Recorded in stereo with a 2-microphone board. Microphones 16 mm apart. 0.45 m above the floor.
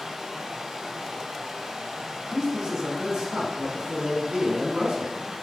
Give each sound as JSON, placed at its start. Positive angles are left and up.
{"t": 0.0, "sound": "running water", "side_deg": -50, "distance_m": 2.0}
{"t": 2.3, "sound": "a man speaking", "side_deg": -70, "distance_m": 4.0}